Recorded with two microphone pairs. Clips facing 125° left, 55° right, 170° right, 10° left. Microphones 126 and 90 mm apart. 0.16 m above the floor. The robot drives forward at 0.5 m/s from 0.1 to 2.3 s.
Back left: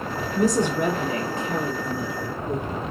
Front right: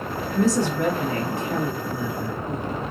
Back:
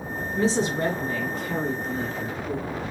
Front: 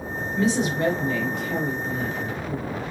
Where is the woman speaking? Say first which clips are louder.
Even, front 1 dB; 175° right, 1.4 m; by 2.6 s straight behind, 2 m.